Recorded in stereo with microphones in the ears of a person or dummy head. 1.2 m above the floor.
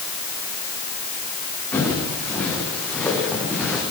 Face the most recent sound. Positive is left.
turn(degrees=0)  # may be behind; listen again after turning